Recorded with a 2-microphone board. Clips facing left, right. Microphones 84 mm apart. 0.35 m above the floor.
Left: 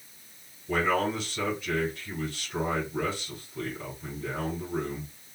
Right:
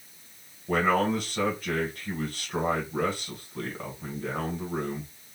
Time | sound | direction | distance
0.7 | a man speaking | 50° right (ahead or behind) | 1.9 m